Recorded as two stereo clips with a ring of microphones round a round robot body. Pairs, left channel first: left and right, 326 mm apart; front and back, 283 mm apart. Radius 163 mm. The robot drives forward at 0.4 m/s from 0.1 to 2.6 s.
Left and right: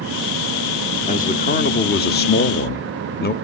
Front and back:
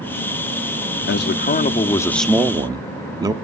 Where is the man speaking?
30° left, 0.8 m; by 3.3 s 115° left, 0.7 m.